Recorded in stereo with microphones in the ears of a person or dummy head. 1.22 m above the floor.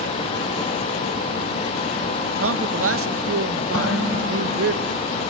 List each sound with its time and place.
2.4 s a man speaking: 70° right (ahead or behind), 1.6 m
3.7 s dishes clattering: 20° left (ahead or behind), 7.5 m